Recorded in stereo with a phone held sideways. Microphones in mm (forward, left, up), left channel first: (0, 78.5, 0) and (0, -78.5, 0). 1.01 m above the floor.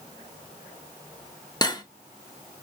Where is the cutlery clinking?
25° left (ahead or behind), 0.6 m.